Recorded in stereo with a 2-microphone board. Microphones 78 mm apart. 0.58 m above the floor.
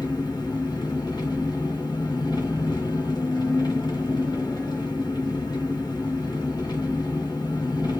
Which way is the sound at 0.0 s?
60° left (ahead or behind).